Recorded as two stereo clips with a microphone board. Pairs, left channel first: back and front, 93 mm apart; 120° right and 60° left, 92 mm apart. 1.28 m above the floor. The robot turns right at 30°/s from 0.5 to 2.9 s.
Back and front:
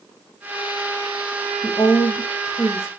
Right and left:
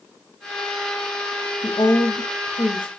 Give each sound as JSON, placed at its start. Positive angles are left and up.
{"t": 1.6, "sound": "a woman speaking", "azimuth_deg": -155, "distance_m": 1.0}